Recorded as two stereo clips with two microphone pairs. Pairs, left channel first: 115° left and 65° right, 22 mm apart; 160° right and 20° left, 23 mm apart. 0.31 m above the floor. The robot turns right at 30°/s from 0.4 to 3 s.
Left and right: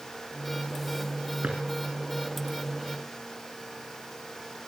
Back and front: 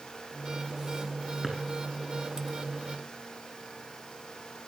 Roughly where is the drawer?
Right.